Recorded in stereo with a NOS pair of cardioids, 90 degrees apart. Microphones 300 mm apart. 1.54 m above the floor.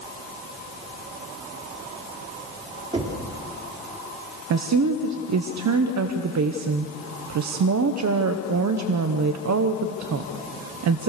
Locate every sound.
2.9 s knocking: 20° right, 4 m
4.5 s a woman speaking: 65° right, 1.1 m